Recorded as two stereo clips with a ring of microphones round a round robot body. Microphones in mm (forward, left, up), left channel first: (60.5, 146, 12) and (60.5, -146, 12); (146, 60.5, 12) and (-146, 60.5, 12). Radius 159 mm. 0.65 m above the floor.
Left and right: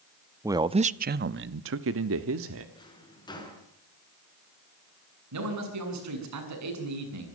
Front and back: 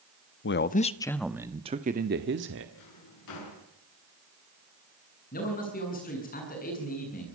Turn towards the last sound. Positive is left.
turn(degrees=-65)